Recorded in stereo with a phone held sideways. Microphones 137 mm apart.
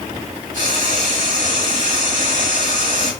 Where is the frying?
80° right, 5 m.